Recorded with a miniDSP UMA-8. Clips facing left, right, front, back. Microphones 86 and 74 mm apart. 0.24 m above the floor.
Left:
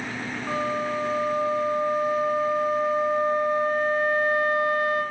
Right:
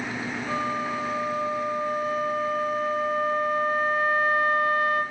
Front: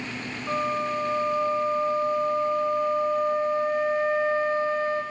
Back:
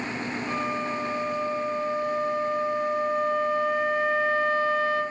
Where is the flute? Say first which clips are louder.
Left 2 dB, front 4 dB; 50° left, 1.5 m.